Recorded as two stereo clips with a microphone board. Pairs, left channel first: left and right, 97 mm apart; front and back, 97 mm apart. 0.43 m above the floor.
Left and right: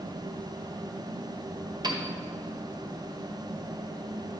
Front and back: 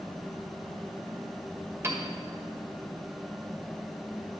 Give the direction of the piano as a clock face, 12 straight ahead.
4 o'clock.